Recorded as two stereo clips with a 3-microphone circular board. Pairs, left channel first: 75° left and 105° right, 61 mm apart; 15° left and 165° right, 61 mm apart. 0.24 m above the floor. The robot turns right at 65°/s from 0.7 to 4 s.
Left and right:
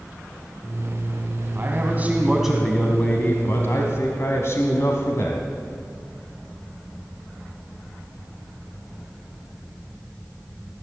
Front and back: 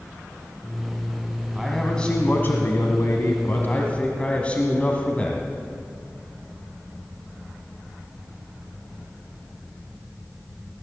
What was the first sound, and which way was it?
A man speaking, 80° right.